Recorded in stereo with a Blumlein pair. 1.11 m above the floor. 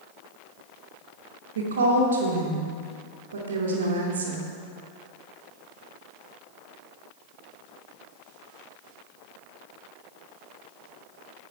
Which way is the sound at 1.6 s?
65° right.